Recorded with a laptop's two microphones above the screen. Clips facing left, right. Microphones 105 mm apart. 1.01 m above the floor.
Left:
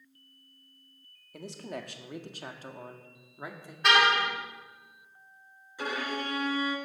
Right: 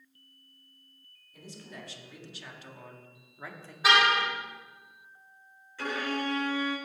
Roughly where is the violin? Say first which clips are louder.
Right 1 dB; centre.